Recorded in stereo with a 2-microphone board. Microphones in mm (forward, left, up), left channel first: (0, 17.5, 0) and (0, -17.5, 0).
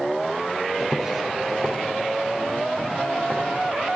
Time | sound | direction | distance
0.8 | footsteps | 5° right (ahead or behind) | 2 m